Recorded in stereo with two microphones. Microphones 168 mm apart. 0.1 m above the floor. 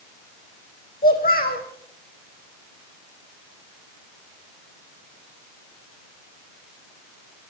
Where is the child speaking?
60° left (ahead or behind), 4 m.